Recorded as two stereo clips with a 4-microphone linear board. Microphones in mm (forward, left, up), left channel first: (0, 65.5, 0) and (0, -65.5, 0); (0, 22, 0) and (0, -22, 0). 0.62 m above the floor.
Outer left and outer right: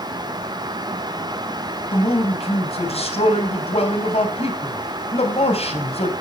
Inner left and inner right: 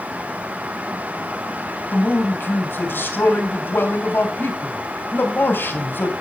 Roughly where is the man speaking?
Left.